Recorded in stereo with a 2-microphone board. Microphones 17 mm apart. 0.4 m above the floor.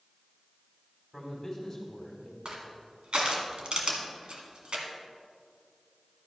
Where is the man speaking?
20° left (ahead or behind), 2.5 m.